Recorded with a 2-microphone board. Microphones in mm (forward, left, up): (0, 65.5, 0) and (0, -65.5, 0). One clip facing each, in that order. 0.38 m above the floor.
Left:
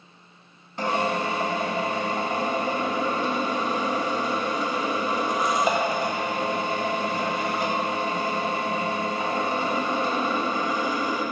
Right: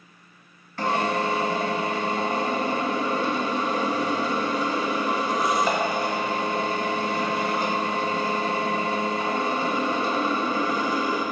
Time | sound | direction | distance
0.8 | a drill | 20° left (ahead or behind) | 1.8 m